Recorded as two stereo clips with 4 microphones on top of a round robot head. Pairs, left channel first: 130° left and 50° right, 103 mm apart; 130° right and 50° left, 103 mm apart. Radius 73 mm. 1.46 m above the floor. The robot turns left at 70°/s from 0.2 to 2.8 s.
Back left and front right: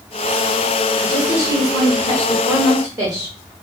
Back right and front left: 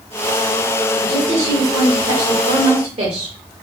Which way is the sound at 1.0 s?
135° left.